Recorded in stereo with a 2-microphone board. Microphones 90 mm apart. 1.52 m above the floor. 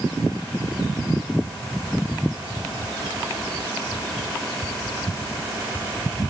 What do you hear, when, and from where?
Only background noise.